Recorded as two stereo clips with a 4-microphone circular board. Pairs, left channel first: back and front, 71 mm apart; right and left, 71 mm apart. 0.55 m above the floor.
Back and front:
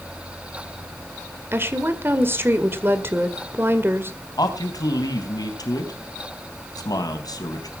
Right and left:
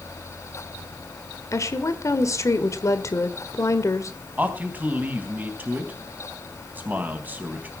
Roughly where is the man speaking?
Behind left.